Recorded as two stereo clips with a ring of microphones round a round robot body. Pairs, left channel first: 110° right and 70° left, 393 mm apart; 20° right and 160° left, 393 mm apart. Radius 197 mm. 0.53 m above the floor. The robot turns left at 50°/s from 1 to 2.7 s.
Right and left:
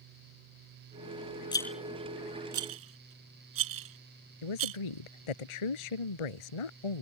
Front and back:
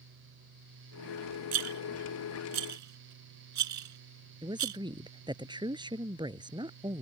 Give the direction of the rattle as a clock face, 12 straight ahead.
6 o'clock.